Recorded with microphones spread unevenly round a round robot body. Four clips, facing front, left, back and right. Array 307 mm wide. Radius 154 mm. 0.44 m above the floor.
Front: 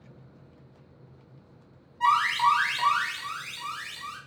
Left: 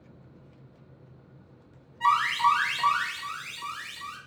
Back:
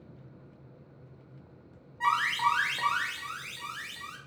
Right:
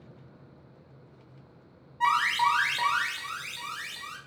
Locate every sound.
2.0 s an alarm: 145° right, 0.8 m